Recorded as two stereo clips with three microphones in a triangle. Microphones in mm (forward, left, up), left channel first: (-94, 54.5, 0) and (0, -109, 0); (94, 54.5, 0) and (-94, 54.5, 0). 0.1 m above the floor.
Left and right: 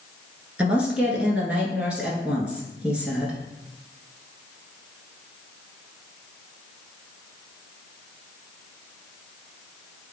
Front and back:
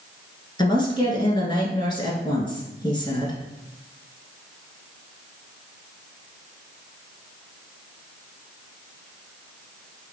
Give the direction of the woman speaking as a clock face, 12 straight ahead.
11 o'clock.